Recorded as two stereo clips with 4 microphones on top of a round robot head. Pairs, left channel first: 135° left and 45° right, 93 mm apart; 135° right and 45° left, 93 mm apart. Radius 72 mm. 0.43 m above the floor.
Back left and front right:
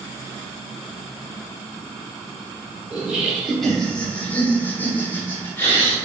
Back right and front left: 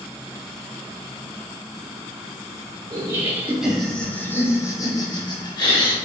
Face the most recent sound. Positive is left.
turn(degrees=-160)